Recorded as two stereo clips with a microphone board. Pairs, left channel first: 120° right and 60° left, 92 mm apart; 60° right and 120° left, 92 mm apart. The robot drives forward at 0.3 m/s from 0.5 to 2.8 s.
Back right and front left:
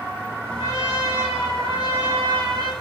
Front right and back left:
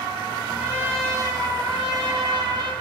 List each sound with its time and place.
0.6 s a trumpet: 50° left, 0.8 m; by 2.7 s 100° left, 0.7 m